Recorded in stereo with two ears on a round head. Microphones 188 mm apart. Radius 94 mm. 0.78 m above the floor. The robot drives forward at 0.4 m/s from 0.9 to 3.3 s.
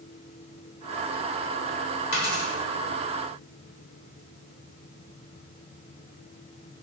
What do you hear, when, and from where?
2.1 s a dropped coin: 50° left (ahead or behind), 1.5 m; by 2.5 s 55° left (ahead or behind), 1.4 m